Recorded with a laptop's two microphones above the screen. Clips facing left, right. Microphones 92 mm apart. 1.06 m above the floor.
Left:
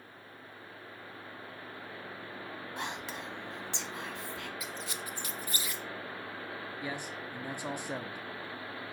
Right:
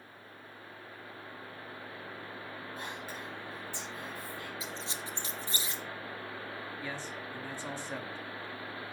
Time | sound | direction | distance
2.8 | whispering | 80° left | 1.1 m
4.6 | a squeak | 30° right (ahead or behind) | 0.7 m
6.8 | a man speaking | 15° left (ahead or behind) | 0.7 m